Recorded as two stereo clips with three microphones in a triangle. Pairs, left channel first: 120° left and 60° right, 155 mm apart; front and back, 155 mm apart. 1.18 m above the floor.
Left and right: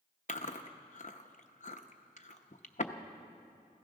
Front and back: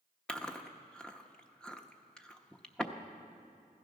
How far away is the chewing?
About 0.8 m.